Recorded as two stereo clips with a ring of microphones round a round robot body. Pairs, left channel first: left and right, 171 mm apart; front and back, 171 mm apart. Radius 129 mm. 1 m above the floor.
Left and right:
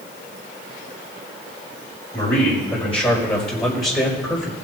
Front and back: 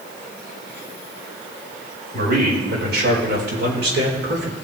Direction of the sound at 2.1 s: 155° left.